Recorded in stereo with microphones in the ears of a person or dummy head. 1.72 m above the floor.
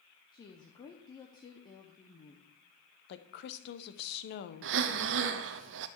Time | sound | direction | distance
0.3 | a woman speaking | 25° left (ahead or behind) | 0.9 m
3.1 | a woman speaking | 55° left (ahead or behind) | 1.1 m
4.6 | breathing | 70° right (ahead or behind) | 0.7 m